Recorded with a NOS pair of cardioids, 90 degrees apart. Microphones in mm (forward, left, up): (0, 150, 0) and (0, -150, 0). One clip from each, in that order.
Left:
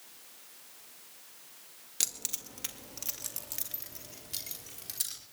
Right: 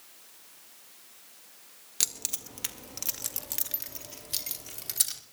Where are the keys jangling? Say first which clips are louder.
Right 3 dB; 15° right, 1.5 m; by 5.2 s 45° right, 3.5 m.